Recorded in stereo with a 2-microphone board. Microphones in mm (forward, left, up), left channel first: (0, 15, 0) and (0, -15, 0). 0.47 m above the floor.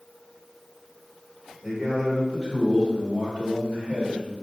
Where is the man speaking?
10° right (ahead or behind), 2.0 m; by 4.3 s 60° right (ahead or behind), 2.5 m.